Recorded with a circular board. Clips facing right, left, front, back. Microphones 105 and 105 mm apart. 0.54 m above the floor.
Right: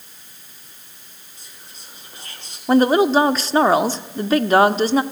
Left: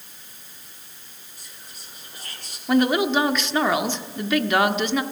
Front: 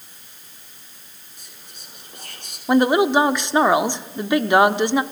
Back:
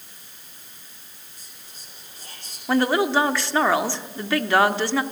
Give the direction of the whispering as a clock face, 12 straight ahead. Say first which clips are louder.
Right 1 dB, front 5 dB; 1 o'clock.